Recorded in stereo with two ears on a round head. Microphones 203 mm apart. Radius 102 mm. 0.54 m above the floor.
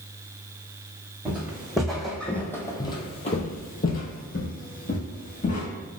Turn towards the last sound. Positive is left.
turn(degrees=35)  # may be behind; listen again after turning